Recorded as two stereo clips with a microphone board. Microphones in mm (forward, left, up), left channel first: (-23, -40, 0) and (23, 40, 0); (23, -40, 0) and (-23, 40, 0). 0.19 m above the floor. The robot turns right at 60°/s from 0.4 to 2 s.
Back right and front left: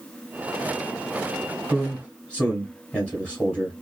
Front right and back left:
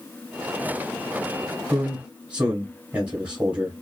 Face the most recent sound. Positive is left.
turn(degrees=180)